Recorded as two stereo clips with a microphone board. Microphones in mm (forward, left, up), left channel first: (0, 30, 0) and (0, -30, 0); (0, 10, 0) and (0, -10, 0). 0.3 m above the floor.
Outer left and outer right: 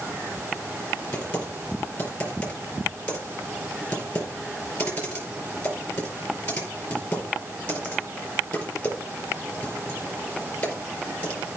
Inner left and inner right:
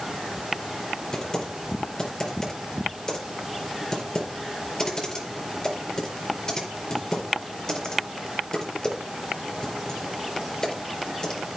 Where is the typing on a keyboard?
20° left (ahead or behind), 4.5 m.